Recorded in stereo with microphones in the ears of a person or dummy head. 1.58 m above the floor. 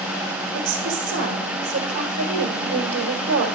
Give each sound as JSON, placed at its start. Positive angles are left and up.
{"t": 0.5, "sound": "a woman speaking", "side_deg": -60, "distance_m": 1.7}